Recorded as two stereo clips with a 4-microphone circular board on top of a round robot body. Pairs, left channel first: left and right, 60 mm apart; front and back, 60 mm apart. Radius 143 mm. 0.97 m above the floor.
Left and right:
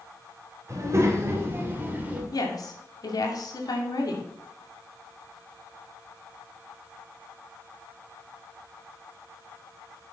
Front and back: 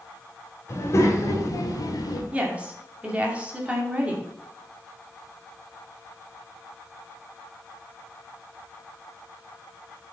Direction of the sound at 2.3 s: 110° left.